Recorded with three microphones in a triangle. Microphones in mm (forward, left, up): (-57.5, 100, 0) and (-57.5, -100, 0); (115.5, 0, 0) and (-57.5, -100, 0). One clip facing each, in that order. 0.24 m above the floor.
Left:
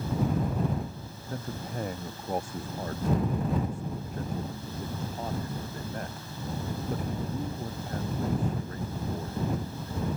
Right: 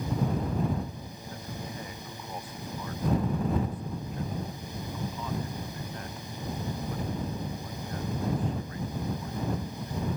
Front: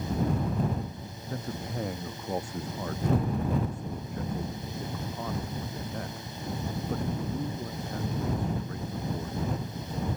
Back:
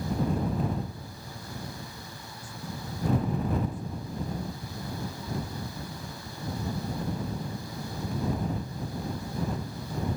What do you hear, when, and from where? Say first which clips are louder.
1.3 s a man speaking: left 5 dB, front 7 dB; 50° left; by 10.1 s 45° left